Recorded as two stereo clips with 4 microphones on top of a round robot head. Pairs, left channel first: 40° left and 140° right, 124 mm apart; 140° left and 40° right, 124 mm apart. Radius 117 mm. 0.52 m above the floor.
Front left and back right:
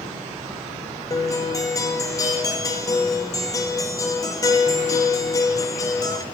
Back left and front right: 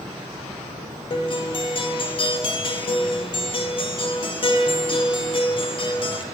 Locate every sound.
1.1 s a guitar: 100° left, 0.9 m